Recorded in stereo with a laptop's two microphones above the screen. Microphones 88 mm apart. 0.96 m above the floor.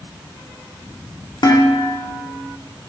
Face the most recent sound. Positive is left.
turn(degrees=60)  # may be behind; listen again after turning